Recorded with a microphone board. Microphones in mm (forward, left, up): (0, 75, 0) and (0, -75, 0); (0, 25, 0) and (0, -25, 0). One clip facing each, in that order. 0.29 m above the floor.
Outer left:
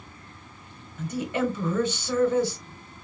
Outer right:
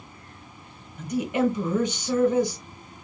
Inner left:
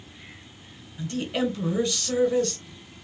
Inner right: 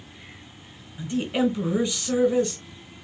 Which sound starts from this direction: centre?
A woman speaking, at 1.0 s.